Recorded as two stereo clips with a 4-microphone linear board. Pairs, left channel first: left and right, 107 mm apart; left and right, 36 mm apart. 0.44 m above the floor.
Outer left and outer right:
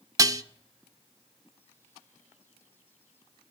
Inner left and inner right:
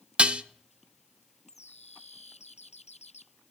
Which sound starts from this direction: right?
Dishes clattering, at 0.2 s.